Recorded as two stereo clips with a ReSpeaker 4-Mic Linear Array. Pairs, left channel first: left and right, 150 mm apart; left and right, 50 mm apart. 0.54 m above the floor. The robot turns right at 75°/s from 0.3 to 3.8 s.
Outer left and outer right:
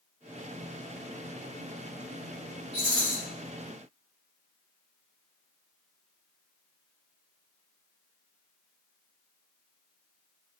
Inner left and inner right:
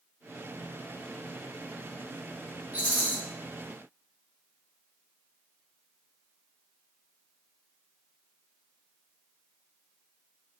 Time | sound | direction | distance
2.7 | a rattle | 85° right | 1.0 m